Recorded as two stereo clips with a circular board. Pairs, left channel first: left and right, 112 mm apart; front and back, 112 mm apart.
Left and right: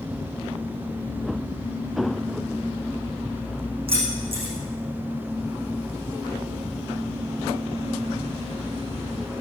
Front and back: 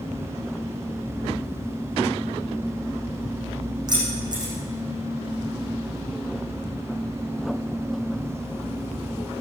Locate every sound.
3.9 s keys jangling: 125° right, 7.5 m